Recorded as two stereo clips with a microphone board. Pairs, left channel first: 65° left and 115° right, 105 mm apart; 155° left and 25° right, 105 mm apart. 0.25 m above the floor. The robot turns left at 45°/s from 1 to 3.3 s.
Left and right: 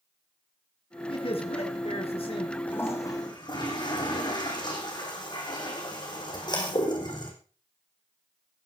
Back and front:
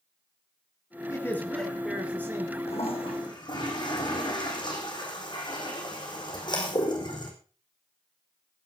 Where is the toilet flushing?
140° left, 4 m; by 7.3 s 115° left, 4 m.